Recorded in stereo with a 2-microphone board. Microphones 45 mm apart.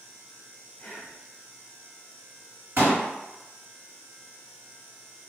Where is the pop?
50° right (ahead or behind), 1.5 m.